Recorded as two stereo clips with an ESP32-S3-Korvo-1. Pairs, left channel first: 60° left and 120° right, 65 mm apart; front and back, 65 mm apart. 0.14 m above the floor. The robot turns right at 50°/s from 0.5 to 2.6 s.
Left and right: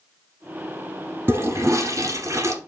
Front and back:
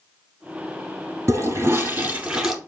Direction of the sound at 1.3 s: 160° right.